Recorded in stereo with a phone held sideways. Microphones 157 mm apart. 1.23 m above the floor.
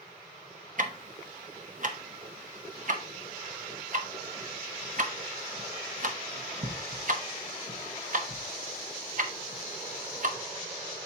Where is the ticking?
55° right (ahead or behind), 0.9 m.